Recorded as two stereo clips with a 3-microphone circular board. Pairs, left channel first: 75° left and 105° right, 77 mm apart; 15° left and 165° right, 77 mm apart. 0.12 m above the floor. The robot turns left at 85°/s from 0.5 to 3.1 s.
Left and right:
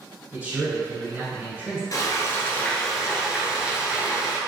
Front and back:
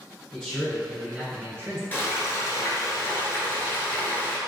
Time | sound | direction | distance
0.3 | a man speaking | 55° right | 1.5 m
1.9 | frying | 70° left | 0.8 m